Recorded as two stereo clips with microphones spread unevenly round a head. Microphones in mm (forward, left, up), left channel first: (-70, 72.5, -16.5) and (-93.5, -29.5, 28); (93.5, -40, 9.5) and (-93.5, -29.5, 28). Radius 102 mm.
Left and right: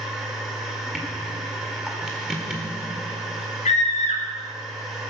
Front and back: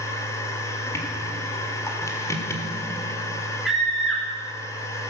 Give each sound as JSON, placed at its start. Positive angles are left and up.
{"t": 0.0, "sound": "a machine running", "azimuth_deg": -75, "distance_m": 1.5}
{"t": 3.6, "sound": "a scream", "azimuth_deg": 90, "distance_m": 3.0}